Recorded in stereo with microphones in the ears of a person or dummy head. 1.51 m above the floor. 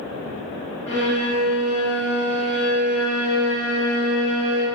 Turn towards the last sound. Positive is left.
turn(degrees=20)  # may be behind; listen again after turning